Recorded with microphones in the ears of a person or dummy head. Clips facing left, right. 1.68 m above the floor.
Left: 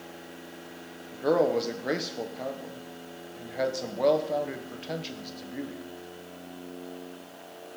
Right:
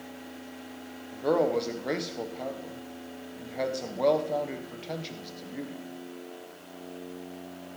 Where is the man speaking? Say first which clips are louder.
Left 1 dB; 10° left (ahead or behind), 1.3 m.